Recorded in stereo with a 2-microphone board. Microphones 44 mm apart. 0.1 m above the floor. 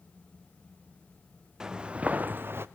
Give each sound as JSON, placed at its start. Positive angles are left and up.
{"t": 1.6, "sound": "footsteps", "side_deg": -15, "distance_m": 1.3}